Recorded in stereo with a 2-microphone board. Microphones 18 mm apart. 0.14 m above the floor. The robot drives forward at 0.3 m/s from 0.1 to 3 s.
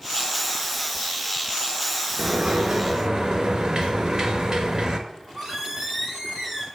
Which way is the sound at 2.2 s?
50° right (ahead or behind).